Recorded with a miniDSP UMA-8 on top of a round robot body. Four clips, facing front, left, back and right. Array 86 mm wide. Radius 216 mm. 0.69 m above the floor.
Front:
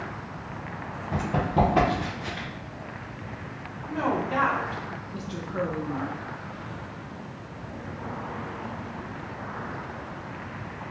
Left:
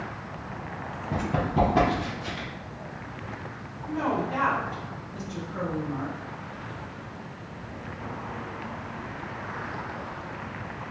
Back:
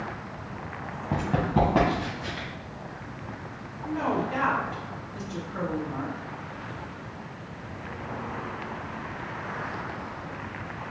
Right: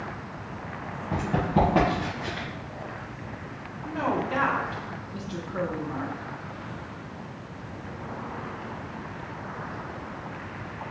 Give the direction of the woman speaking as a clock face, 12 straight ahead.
2 o'clock.